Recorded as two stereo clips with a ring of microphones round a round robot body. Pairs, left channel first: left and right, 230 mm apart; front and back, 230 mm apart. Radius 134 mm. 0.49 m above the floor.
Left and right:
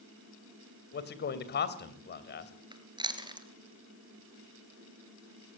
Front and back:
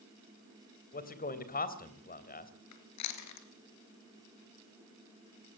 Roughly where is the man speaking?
Ahead left.